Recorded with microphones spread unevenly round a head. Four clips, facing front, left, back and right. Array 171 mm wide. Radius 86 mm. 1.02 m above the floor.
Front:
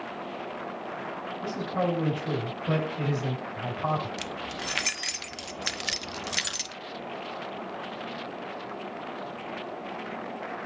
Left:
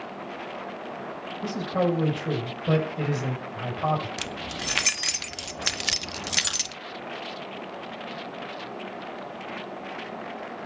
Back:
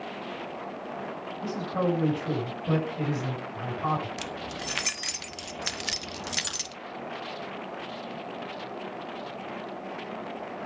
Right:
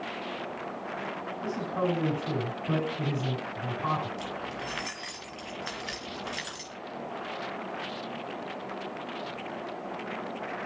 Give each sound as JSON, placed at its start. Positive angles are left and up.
{"t": 1.4, "sound": "a man speaking", "azimuth_deg": 85, "distance_m": 6.0}
{"t": 4.2, "sound": "keys jangling", "azimuth_deg": 85, "distance_m": 1.0}